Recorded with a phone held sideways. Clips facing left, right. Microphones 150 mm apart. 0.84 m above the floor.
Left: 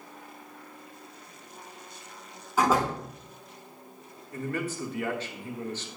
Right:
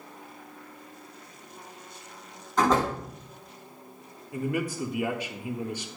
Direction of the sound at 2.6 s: 10° left (ahead or behind).